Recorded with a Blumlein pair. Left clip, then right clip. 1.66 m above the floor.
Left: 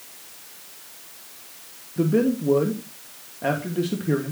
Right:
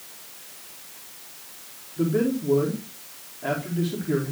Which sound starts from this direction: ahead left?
A man speaking, at 2.0 s.